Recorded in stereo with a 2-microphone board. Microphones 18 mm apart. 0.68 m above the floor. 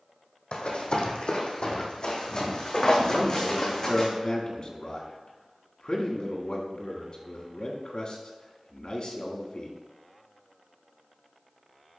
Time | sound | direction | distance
0.5 | running footsteps | 70° left (ahead or behind) | 1.8 m
3.1 | a man speaking | 50° left (ahead or behind) | 1.6 m